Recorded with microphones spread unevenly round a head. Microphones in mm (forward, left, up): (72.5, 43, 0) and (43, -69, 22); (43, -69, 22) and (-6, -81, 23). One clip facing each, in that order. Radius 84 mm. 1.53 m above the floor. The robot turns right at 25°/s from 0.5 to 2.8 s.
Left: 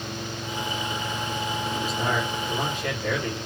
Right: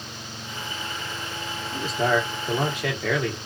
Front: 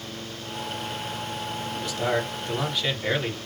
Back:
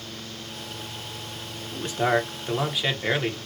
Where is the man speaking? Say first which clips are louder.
Right 6 dB, back 3 dB; 115° right, 1.5 m; by 3.4 s 90° right, 1.5 m.